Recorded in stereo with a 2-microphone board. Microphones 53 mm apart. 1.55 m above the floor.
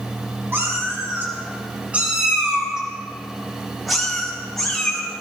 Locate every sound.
0.5 s a cat meowing: 45° right (ahead or behind), 3.5 m; by 5.0 s 10° left (ahead or behind), 5 m